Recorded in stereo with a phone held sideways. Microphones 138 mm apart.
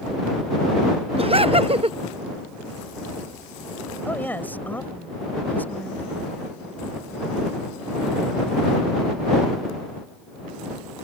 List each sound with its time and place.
1.2 s laughter: 45° right (ahead or behind)
4.0 s a woman speaking: 15° left (ahead or behind)